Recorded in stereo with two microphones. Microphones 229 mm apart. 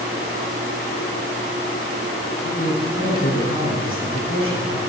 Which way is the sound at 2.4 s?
70° left (ahead or behind).